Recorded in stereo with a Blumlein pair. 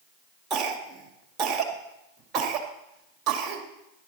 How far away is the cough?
About 2 m.